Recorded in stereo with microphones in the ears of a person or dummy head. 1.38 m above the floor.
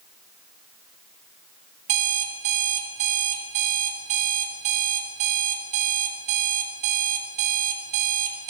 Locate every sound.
1.9 s an alarm clock: 45° right (ahead or behind), 3.5 m